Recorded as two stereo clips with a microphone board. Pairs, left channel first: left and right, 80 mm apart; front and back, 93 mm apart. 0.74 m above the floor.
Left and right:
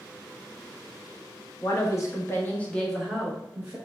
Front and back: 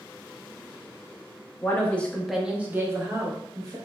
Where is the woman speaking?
65° left, 0.7 m; by 3.8 s 155° right, 0.7 m.